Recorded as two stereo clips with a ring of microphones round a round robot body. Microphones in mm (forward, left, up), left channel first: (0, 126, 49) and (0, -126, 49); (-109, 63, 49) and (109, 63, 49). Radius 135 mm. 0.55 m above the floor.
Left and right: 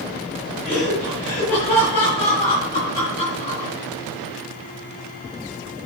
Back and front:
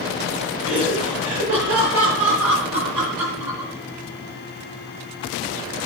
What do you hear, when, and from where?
0.6 s laughter: 25° left, 8.5 m; by 3.7 s 20° left, 10.5 m